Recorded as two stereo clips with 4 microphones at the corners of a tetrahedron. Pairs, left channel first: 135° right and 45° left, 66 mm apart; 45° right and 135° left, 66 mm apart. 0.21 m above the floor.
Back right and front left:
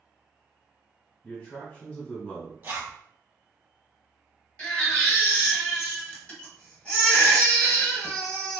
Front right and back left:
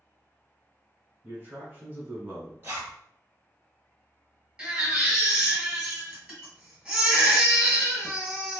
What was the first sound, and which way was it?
A man speaking, 170° left.